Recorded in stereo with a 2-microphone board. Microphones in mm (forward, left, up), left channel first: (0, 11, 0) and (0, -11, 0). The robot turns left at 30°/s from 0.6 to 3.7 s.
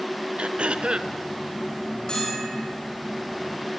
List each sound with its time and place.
0.4 s throat clearing: 75° right (ahead or behind), 0.8 m; by 1.1 s 60° right (ahead or behind), 0.8 m
2.1 s a bell: 40° left (ahead or behind), 10 m; by 2.7 s 60° left (ahead or behind), 10 m